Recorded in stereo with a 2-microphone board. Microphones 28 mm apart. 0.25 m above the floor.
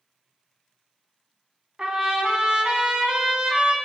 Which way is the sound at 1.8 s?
40° right (ahead or behind).